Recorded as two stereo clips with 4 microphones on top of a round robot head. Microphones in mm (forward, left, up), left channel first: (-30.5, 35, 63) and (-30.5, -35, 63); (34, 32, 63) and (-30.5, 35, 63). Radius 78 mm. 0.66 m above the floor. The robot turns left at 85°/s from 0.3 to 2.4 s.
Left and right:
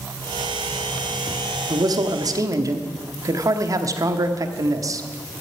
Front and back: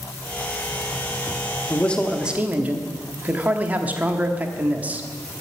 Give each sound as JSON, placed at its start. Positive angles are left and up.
{"t": 1.7, "sound": "a man speaking", "azimuth_deg": -60, "distance_m": 1.2}